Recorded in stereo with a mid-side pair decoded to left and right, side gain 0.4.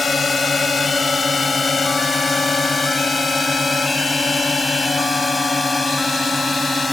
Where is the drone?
40° left; by 6.9 s 25° left.